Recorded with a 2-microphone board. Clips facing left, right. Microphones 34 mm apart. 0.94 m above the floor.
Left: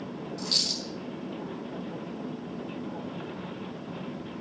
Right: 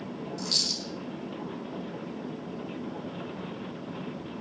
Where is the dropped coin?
5° left (ahead or behind), 3 m.